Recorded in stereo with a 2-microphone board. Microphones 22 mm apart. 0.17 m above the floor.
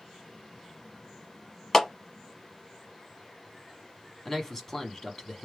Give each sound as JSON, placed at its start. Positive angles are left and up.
{"t": 1.7, "sound": "a clap", "side_deg": 25, "distance_m": 0.8}
{"t": 4.2, "sound": "a man speaking", "side_deg": 20, "distance_m": 1.1}